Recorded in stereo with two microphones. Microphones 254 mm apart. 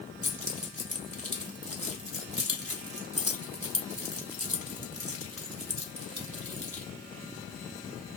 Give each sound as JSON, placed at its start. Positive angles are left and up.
{"t": 0.2, "sound": "keys jangling", "side_deg": -65, "distance_m": 0.9}